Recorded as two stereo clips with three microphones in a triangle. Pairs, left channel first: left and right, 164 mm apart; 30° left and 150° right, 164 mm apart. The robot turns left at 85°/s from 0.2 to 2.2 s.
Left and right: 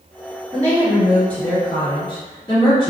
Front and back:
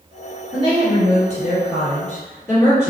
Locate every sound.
0.5 s a woman speaking: 130° right, 1.9 m; by 2.9 s 85° left, 1.9 m